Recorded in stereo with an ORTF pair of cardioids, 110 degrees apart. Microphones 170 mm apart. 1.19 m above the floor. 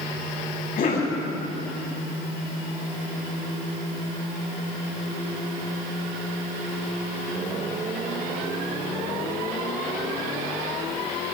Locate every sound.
0.8 s a cough: 60° left, 8 m